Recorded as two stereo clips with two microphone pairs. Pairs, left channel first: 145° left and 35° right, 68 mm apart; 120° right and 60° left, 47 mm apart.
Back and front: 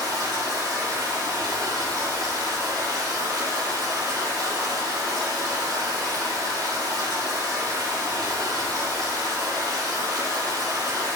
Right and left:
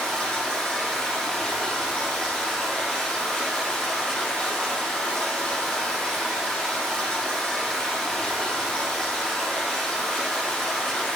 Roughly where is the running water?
Ahead right.